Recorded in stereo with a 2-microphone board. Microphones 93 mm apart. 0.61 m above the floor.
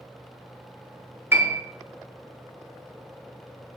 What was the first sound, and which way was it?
A piano, 25° right (ahead or behind).